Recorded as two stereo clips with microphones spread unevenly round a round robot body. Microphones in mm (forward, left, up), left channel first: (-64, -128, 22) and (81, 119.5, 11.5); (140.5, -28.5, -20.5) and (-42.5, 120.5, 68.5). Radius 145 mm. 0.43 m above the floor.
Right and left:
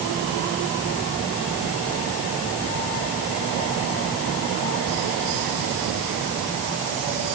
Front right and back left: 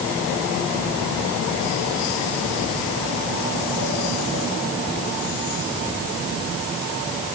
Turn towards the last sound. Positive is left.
No sound to turn to.